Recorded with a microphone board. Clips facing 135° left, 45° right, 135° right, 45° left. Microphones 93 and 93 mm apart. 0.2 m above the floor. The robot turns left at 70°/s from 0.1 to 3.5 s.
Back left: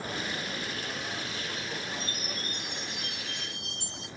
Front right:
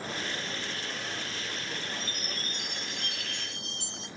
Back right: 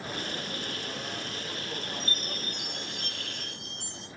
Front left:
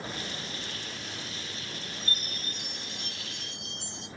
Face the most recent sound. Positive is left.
turn(degrees=180)